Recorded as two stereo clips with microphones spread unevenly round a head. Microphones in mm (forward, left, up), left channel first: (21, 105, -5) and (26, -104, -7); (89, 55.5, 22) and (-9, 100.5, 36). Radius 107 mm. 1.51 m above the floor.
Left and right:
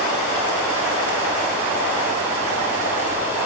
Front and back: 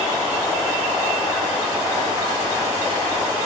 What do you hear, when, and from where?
Only background noise.